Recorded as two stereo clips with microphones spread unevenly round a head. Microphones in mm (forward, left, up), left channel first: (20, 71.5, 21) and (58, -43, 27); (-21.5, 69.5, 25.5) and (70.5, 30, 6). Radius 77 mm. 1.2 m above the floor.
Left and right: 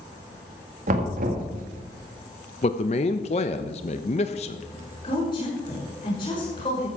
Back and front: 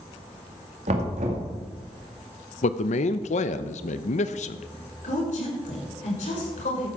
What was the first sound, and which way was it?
Knocking, 55° right.